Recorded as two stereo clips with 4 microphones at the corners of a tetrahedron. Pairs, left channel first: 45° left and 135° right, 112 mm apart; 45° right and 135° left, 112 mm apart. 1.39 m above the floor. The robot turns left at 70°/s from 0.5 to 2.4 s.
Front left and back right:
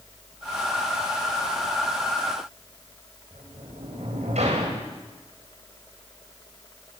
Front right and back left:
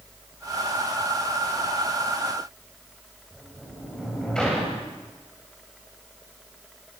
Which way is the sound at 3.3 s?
130° right.